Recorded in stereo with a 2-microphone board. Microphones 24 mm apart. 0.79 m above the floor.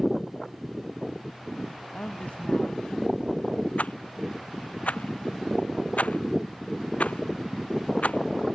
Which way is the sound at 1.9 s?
70° left (ahead or behind).